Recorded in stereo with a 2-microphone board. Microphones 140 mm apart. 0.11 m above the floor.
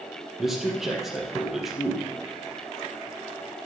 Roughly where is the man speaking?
Centre.